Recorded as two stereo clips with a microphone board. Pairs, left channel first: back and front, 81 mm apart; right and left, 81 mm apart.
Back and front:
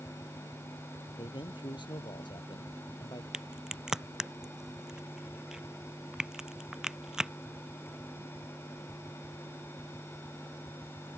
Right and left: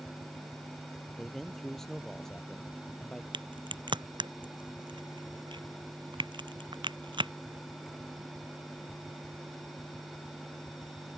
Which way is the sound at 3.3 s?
80° left.